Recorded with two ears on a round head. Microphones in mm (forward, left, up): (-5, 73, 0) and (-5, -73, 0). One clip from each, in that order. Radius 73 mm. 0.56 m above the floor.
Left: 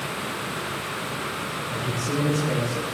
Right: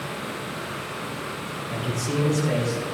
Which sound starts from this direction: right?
A man speaking, at 1.7 s.